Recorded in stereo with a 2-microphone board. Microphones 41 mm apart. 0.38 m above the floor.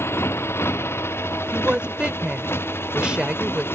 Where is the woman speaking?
25° right (ahead or behind).